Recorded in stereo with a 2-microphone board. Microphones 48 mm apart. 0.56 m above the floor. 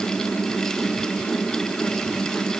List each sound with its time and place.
Only background noise.